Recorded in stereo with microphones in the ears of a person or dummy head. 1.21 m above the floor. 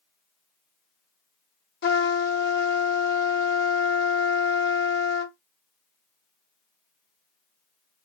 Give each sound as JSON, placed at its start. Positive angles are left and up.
{"t": 1.8, "sound": "a trumpet", "side_deg": 50, "distance_m": 0.9}